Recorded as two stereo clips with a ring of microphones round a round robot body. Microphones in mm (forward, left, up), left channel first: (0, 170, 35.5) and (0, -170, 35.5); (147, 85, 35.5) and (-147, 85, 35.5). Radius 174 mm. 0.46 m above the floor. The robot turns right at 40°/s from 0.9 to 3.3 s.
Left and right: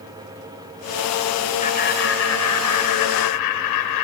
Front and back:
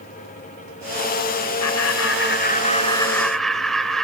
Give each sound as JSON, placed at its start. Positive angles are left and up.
{"t": 1.6, "sound": "laughter", "azimuth_deg": 20, "distance_m": 2.0}